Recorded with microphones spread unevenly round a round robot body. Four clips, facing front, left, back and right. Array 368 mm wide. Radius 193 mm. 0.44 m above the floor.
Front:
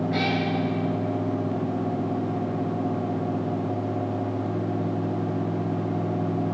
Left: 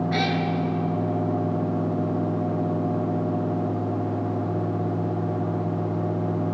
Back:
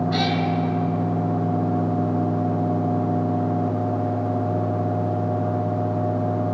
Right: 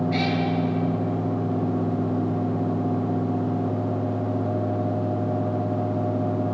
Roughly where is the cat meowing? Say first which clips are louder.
Even, back 2 dB; behind left.